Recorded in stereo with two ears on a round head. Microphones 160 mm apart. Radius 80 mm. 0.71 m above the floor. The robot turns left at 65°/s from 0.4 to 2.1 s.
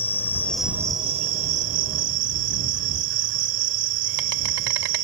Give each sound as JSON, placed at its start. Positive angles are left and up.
{"t": 0.0, "sound": "an insect", "azimuth_deg": 10}